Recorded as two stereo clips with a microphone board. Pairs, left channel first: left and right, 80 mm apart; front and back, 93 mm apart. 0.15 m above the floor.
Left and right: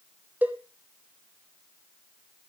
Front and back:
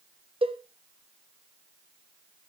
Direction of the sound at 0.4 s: 160° right.